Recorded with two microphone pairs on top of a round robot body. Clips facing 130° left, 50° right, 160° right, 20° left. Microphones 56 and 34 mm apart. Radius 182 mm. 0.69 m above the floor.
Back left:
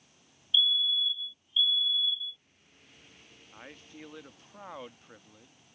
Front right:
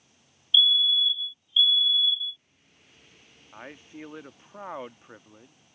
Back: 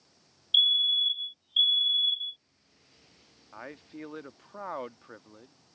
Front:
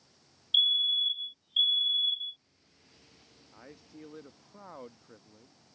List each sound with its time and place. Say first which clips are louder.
0.5 s a fire alarm: front right 5 dB, back 2 dB; 125° left
3.5 s a man speaking: front right 6 dB, back 8 dB; 115° right